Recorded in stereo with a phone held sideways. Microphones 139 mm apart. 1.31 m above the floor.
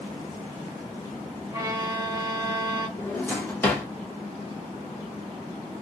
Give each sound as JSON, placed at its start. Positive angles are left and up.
{"t": 1.5, "sound": "a violin", "side_deg": -20, "distance_m": 0.7}
{"t": 3.0, "sound": "a drawer", "side_deg": 15, "distance_m": 0.7}